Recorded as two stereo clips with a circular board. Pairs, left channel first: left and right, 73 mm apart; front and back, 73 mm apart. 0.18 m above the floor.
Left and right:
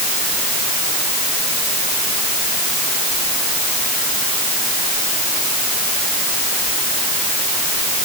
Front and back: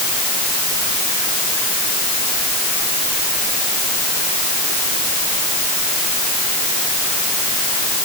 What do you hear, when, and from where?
Only background noise.